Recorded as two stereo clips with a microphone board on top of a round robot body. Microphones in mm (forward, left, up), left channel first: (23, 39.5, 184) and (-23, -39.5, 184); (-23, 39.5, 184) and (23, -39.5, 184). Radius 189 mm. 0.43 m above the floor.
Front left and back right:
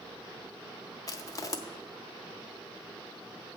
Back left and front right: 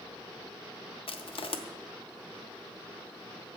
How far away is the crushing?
About 1.0 m.